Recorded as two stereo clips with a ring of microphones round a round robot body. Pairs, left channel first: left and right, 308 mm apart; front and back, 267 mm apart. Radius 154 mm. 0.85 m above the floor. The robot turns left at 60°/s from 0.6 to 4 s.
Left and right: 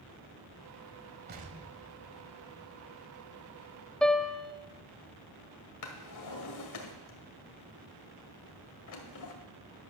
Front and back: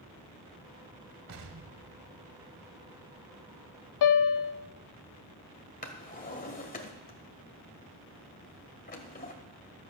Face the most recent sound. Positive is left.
turn(degrees=60)